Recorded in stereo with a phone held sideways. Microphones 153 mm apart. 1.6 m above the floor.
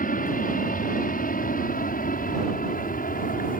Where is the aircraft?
70° left (ahead or behind).